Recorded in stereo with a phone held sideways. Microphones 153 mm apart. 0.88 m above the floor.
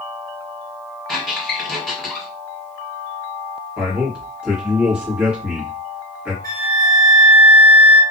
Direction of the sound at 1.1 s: Centre (ahead or behind).